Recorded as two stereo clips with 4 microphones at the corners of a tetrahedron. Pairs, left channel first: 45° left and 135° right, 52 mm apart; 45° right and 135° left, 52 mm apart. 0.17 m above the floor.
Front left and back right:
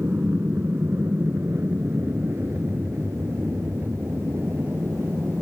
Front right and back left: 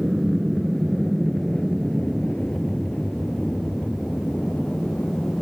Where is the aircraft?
120° right; by 5.4 s 95° right.